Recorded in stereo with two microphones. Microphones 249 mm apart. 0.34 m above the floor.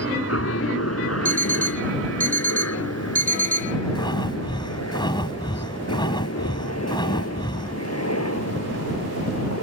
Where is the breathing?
20° left (ahead or behind).